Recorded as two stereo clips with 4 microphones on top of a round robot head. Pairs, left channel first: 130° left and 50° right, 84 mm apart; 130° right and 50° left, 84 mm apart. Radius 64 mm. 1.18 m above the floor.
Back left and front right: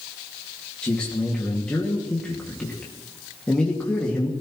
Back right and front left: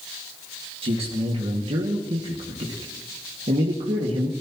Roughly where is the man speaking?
Ahead left.